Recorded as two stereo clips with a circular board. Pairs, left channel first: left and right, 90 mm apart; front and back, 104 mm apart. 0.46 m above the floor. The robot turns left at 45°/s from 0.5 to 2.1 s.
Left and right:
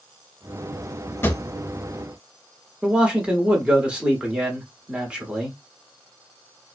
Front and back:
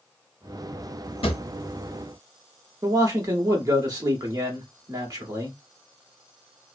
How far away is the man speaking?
About 0.9 m.